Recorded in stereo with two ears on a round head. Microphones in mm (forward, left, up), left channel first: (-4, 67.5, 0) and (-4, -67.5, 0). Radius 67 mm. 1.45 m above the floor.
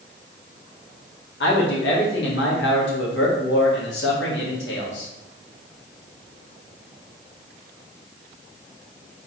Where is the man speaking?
85° left, 1.6 m.